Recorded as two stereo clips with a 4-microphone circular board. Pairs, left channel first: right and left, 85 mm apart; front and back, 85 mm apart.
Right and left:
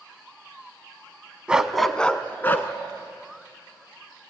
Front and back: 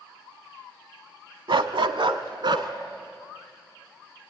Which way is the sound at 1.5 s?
165° left.